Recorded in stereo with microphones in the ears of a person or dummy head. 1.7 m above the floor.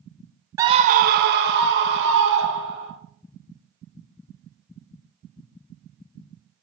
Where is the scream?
15° right (ahead or behind), 0.5 m; by 2.9 s 65° right (ahead or behind), 4 m.